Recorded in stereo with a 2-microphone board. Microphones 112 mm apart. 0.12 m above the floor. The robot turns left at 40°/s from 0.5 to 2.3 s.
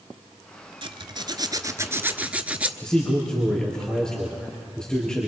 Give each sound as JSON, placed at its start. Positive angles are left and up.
{"t": 0.8, "sound": "a zipper", "azimuth_deg": -105, "distance_m": 0.9}
{"t": 2.8, "sound": "a man speaking", "side_deg": 5, "distance_m": 3.0}